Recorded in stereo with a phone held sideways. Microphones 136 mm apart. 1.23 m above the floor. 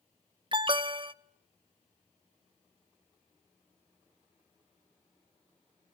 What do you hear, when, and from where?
0.5 s an alarm: 35° right (ahead or behind), 0.6 m